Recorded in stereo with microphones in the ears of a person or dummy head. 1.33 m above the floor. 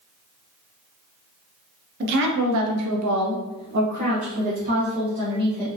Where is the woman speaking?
50° right (ahead or behind), 0.8 m; by 5.7 s 25° right (ahead or behind), 1.5 m.